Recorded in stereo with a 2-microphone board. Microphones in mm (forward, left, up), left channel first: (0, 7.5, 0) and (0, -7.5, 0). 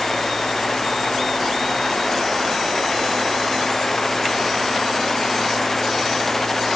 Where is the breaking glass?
No breaking glass in this recording.